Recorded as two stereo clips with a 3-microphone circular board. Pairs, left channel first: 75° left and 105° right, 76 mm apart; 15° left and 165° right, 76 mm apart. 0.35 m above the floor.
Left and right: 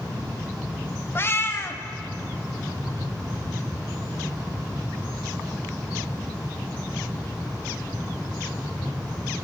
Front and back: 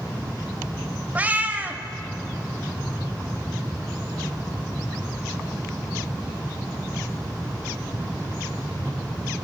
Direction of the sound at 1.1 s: 125° left.